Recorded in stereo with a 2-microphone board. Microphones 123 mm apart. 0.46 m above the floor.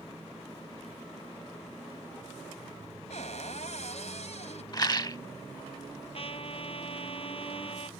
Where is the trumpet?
50° left (ahead or behind).